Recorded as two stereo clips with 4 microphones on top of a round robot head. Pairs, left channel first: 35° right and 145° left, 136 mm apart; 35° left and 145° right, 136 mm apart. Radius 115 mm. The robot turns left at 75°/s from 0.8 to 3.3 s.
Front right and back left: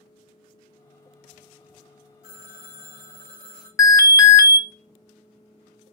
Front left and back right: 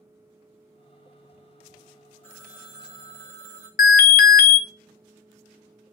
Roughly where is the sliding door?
I don't hear a sliding door.